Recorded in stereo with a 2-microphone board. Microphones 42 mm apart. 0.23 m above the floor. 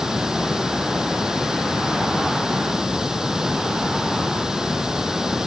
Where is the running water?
15° right (ahead or behind).